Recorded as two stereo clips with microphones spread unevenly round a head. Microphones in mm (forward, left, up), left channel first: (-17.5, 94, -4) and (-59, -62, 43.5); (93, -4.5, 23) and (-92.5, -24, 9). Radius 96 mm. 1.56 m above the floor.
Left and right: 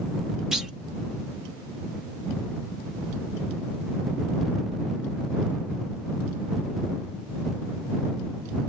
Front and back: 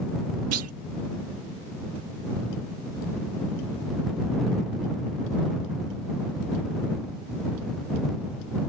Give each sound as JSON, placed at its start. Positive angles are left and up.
{"t": 0.5, "sound": "a clunk", "azimuth_deg": 175}